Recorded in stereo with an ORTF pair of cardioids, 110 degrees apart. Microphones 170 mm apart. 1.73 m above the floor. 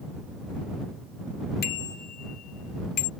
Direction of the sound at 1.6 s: 65° left.